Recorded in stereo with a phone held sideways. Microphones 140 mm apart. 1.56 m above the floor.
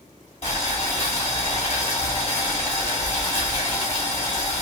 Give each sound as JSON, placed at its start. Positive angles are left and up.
{"t": 0.4, "sound": "boiling", "side_deg": 55, "distance_m": 2.0}